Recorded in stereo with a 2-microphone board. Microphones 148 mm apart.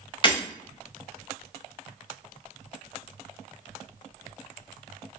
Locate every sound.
0.2 s breaking glass: 35° left (ahead or behind), 1.0 m